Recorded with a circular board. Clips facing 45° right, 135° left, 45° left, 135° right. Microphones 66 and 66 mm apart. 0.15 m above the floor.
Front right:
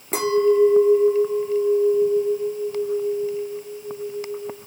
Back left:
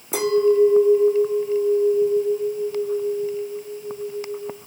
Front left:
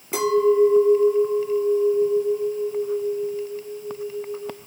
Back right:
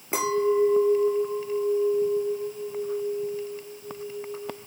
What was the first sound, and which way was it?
A clink, 75° right.